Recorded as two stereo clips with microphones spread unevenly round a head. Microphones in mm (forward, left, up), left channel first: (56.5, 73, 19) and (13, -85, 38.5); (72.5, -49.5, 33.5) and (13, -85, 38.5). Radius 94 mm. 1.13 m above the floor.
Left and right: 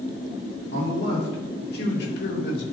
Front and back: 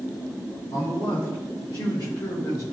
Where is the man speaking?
65° left, 3.5 m; by 2.6 s 80° left, 3 m.